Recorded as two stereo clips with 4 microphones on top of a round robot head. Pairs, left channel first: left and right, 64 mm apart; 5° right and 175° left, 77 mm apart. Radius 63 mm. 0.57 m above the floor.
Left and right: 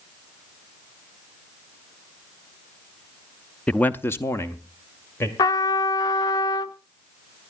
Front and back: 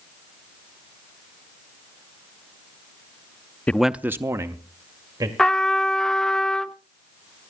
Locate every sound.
3.7 s a man speaking: 40° left, 0.6 m; by 5.3 s 140° left, 2 m
5.4 s a trumpet: 75° left, 0.7 m